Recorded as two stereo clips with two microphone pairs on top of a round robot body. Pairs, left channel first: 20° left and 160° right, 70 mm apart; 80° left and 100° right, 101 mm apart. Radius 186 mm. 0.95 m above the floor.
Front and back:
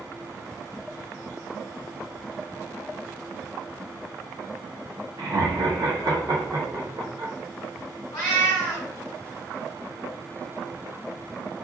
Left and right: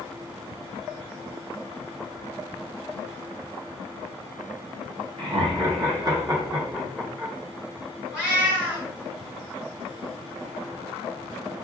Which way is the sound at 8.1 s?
20° right.